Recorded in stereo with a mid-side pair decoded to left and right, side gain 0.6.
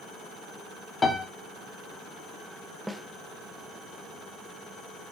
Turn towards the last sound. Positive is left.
turn(degrees=-5)